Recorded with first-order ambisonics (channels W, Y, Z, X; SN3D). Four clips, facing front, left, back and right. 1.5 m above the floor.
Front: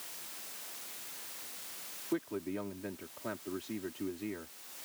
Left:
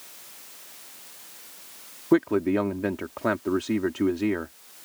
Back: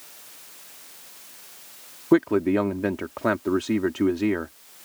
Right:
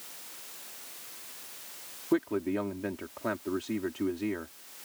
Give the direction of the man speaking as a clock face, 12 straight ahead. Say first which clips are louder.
Left 7 dB, back 17 dB; 7 o'clock.